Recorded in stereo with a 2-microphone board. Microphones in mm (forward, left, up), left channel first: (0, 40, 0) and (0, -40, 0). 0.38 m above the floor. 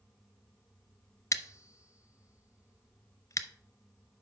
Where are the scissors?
40° left (ahead or behind), 0.5 m.